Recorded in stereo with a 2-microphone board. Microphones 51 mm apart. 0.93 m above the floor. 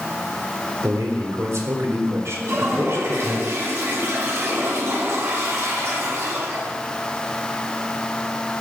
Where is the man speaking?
70° right (ahead or behind), 3.5 m; by 3.4 s 55° right (ahead or behind), 4 m.